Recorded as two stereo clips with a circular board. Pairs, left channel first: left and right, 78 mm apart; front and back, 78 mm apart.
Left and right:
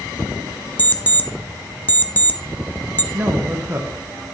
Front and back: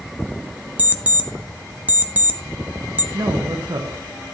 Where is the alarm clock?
135° left, 0.7 m.